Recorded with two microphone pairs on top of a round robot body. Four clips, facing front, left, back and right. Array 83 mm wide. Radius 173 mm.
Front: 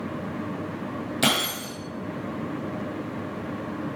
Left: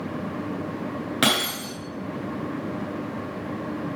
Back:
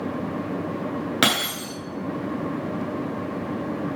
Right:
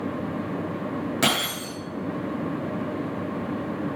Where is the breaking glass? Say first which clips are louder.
Left 4 dB, even; 165° left, 9 m.